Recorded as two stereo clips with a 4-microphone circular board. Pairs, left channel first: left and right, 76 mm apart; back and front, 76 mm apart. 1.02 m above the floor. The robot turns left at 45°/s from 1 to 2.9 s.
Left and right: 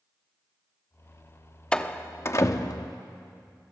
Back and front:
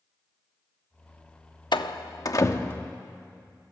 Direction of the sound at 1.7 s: 170° left.